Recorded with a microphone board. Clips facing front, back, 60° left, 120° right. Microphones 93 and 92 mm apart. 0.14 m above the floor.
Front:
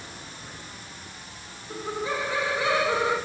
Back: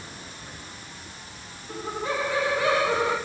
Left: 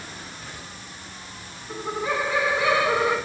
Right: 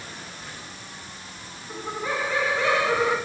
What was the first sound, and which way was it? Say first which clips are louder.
Laughter: even, left 3 dB; 145° left.